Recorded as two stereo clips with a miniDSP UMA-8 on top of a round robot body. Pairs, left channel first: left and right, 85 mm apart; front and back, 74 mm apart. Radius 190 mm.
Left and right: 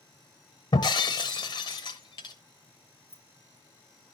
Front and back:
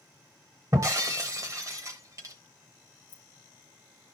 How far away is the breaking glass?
About 0.8 m.